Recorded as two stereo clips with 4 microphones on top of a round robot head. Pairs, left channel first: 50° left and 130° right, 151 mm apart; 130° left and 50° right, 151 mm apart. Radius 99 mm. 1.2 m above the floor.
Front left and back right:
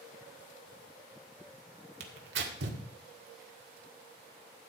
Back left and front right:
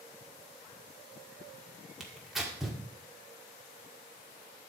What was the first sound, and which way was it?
Tearing paper, 135° right.